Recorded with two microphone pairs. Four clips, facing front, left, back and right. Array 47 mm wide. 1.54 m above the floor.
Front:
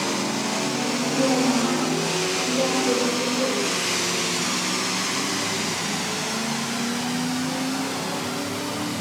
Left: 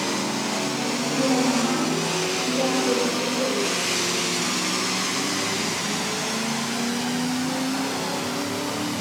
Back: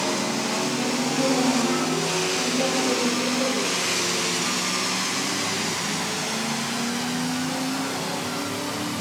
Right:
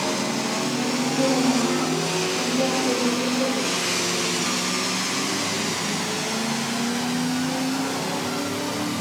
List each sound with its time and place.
1.1 s a woman speaking: 15° left, 3.5 m; by 3.6 s 5° left, 5 m